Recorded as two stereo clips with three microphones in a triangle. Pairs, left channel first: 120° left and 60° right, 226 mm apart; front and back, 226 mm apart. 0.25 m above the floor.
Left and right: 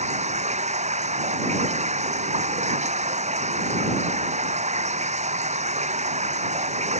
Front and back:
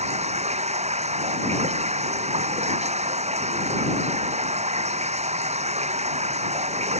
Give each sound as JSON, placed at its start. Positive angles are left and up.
{"t": 0.0, "sound": "running water", "azimuth_deg": -120}